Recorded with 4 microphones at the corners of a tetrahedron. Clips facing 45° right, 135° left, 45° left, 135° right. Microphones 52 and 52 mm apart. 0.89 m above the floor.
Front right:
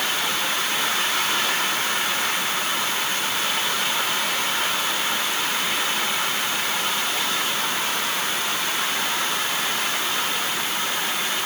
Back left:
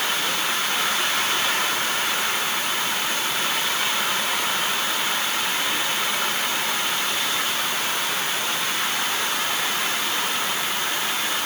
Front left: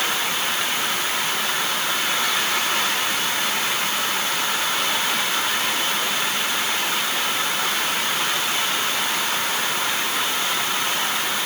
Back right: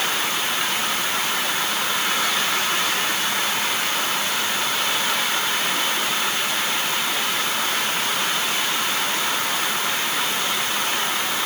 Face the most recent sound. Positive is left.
No sound to turn to.